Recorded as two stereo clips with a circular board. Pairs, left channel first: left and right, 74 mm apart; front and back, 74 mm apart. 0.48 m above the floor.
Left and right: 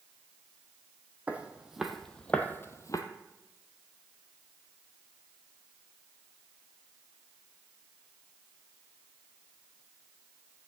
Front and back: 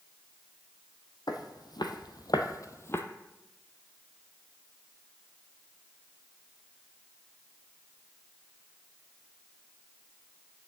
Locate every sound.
1.3 s footsteps: 20° right, 1.3 m; by 3.0 s 55° left, 1.0 m